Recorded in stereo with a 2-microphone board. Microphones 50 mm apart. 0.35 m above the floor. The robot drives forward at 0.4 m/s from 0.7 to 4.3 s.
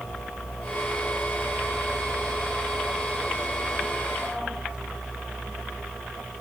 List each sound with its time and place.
Only background noise.